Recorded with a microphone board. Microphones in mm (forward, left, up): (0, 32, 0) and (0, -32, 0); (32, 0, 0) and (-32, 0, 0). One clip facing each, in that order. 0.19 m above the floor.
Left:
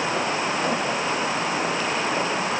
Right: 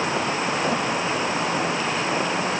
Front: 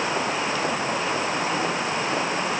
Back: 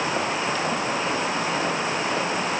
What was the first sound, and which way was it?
Only background noise.